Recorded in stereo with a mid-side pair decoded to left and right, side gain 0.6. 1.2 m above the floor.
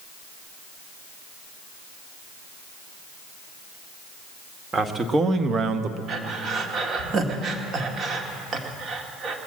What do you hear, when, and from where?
4.7 s a man speaking: 25° right, 1.6 m; by 6.0 s 60° right, 0.9 m
6.1 s breathing: 45° right, 1.7 m